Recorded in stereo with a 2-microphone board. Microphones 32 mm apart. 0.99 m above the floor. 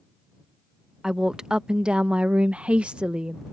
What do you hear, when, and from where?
1.0 s a woman speaking: 20° right (ahead or behind); by 3.4 s 30° right (ahead or behind)